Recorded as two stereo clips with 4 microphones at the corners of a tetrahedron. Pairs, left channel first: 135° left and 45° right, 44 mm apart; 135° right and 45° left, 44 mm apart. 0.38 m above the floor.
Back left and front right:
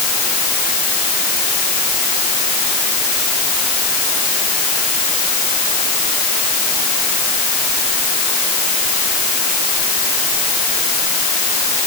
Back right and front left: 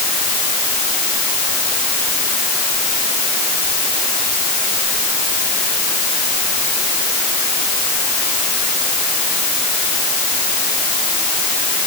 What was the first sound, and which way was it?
Only background noise.